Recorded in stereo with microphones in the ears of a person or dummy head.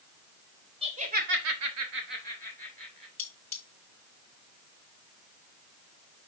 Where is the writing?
No writing in this recording.